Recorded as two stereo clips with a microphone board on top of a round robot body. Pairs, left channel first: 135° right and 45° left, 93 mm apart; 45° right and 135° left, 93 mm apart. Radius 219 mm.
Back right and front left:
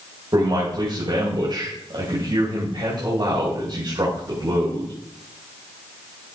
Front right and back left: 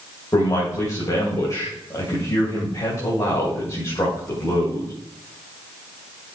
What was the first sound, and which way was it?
A man speaking, 10° left.